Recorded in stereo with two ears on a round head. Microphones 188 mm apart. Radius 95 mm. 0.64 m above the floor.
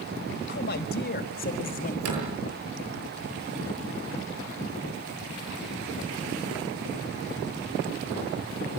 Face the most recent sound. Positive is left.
turn(degrees=-85)